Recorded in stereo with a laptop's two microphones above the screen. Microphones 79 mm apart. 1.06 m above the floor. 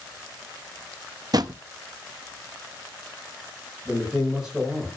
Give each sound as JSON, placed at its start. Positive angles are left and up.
{"t": 1.3, "sound": "a drawer", "side_deg": -55, "distance_m": 0.6}
{"t": 3.9, "sound": "a man speaking", "side_deg": -10, "distance_m": 5.5}